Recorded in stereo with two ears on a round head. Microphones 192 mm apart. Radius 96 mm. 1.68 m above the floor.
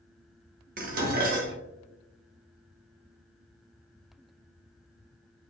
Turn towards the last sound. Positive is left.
turn(degrees=-40)  # may be behind; listen again after turning